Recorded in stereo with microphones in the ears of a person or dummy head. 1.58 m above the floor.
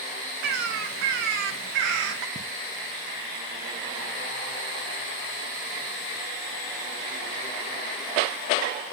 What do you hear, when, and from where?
0.4 s a bird: 60° right (ahead or behind), 1.1 m
2.4 s ticking: 25° right (ahead or behind), 1.2 m